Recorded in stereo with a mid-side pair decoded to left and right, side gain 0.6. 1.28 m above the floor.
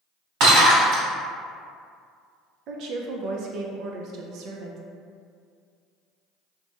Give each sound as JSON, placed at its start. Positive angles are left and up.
{"t": 0.4, "sound": "breaking glass", "azimuth_deg": -65, "distance_m": 1.9}
{"t": 2.7, "sound": "a woman speaking", "azimuth_deg": -65, "distance_m": 0.5}